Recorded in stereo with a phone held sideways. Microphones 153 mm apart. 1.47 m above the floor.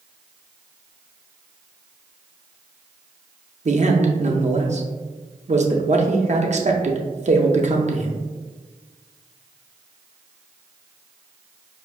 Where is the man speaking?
50° right (ahead or behind), 0.5 m.